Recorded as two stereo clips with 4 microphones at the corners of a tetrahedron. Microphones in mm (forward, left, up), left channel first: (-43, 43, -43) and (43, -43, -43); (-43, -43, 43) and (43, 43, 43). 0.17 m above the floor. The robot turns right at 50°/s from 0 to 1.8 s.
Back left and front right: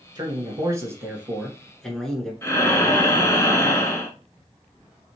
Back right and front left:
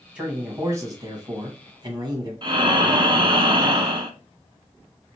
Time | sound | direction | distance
0.1 | a man speaking | 30° right | 1.4 m
2.4 | breathing | 75° left | 0.6 m